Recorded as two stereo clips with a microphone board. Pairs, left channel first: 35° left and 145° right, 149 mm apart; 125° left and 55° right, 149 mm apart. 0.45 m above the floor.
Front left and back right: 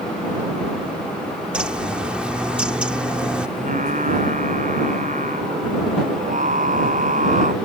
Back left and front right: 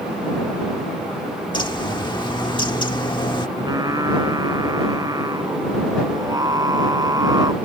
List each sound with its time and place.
1.5 s a bird: 135° left
3.6 s singing: 120° right